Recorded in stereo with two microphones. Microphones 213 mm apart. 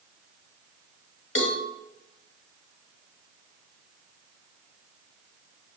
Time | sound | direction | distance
1.4 | a cowbell | 80° left | 1.4 m